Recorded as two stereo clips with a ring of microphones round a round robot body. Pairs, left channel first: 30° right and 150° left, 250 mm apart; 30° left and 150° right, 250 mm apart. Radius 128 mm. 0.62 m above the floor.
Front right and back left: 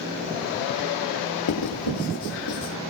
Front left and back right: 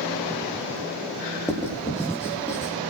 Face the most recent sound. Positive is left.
turn(degrees=-50)